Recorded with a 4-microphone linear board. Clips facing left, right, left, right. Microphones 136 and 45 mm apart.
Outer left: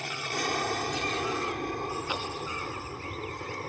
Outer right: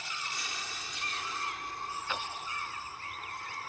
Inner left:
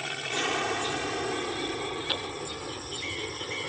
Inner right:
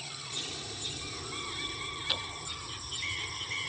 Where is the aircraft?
60° left (ahead or behind).